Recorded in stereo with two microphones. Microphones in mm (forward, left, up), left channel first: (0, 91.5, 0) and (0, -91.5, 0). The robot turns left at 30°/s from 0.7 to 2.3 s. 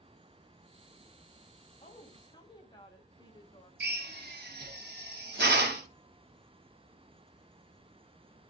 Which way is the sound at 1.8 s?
35° left (ahead or behind).